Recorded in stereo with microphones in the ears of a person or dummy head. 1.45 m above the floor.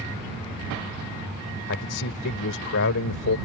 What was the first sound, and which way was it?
A man speaking, 65° left (ahead or behind).